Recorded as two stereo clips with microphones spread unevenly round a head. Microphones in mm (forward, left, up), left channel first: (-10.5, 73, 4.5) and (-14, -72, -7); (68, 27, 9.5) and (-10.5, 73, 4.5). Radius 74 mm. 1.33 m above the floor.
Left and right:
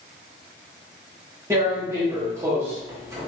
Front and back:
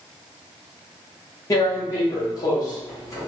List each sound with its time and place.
1.5 s tearing paper: 25° right, 0.9 m